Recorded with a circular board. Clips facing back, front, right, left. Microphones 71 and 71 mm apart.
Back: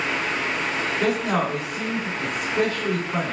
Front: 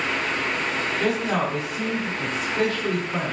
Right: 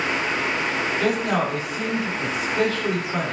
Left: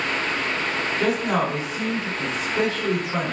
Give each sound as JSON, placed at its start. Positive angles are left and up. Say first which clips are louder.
{"t": 1.0, "sound": "a man speaking", "louder": "back 1 dB, left 1 dB", "azimuth_deg": 125, "distance_m": 1.5}